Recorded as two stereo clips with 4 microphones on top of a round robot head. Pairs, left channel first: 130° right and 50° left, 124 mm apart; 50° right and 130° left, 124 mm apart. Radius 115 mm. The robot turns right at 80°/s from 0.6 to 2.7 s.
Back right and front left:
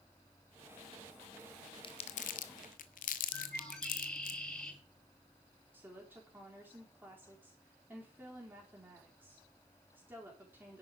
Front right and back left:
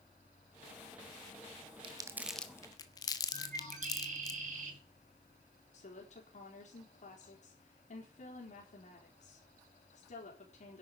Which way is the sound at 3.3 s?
145° left.